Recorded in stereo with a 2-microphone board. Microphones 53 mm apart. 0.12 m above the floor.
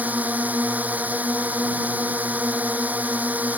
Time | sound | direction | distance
0.0 | a drone | 30° right (ahead or behind) | ?